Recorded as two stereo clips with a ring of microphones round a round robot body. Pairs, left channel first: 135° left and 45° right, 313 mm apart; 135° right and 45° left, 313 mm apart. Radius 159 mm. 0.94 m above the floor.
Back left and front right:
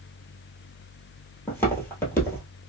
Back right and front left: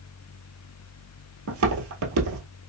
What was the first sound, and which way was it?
Footsteps, 55° left.